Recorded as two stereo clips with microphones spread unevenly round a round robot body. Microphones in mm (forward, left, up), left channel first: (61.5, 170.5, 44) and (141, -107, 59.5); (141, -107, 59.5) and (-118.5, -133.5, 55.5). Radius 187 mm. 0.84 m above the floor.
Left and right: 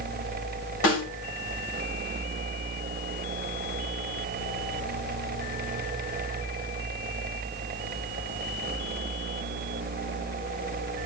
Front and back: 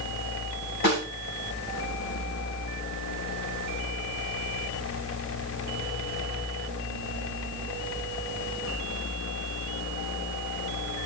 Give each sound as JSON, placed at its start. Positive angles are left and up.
{"t": 0.8, "sound": "a snare drum", "azimuth_deg": 65, "distance_m": 5.5}